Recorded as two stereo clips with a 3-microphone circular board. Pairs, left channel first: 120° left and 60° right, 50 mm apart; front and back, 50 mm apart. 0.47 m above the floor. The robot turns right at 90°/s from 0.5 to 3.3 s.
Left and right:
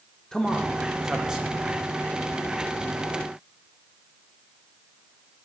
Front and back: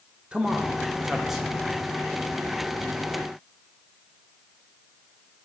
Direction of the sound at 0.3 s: Straight behind.